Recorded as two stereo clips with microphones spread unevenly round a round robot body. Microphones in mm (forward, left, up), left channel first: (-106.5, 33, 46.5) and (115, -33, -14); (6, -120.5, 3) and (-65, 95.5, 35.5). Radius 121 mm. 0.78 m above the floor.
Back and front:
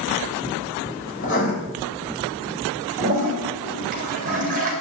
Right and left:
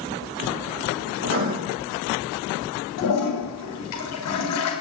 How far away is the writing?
About 6 m.